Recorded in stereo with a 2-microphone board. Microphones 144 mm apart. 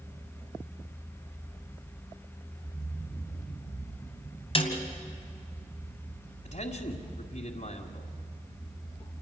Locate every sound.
4.5 s a snare drum: 40° left (ahead or behind), 2.5 m
6.5 s a man speaking: 60° left (ahead or behind), 2.0 m